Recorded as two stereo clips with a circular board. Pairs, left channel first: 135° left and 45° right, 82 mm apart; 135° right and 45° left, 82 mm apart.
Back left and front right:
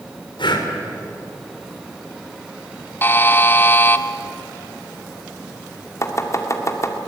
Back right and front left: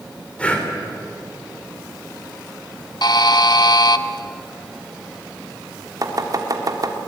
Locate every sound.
0.4 s breathing: 150° left, 3 m
3.0 s a buzzer: 165° right, 0.9 m
6.0 s chopping: 85° left, 2 m